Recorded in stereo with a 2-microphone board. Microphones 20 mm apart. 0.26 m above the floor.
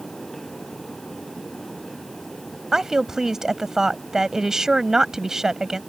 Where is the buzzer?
I don't hear a buzzer.